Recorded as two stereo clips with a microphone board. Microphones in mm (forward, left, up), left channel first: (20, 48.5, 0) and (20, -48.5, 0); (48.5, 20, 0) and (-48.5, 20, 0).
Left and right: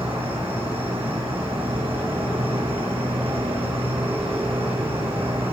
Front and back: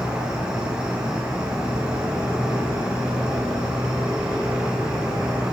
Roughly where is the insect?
Right.